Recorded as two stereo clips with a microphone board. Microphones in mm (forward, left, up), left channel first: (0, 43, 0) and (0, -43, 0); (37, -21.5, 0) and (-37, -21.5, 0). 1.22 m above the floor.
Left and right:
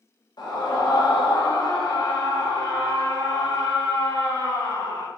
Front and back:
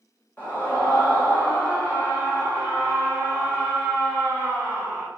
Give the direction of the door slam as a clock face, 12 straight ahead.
I don't hear a door slam.